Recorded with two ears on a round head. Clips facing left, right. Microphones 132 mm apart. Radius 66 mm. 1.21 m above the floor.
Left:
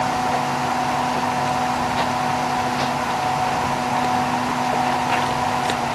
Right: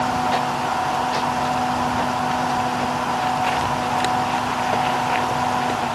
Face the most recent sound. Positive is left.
No sound to turn to.